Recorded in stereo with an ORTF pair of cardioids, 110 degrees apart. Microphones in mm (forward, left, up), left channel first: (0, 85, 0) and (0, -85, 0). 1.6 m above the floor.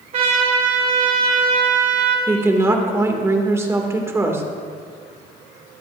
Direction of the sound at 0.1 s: 45° right.